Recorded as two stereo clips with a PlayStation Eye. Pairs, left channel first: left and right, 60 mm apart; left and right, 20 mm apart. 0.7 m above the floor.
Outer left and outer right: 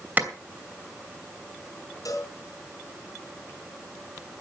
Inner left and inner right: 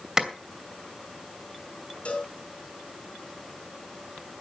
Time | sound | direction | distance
0.2 | a clap | 30° right (ahead or behind) | 2.5 m
2.0 | a cowbell | 70° left (ahead or behind) | 4.5 m